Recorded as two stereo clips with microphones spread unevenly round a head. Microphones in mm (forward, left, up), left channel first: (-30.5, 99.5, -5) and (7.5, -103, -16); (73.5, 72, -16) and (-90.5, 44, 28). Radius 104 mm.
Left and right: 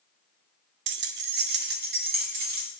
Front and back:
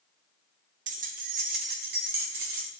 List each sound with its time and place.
0.9 s keys jangling: 115° right, 0.6 m; by 2.7 s 125° right, 1.9 m